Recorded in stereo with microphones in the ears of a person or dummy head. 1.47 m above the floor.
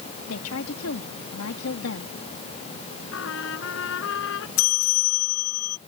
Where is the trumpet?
75° left (ahead or behind).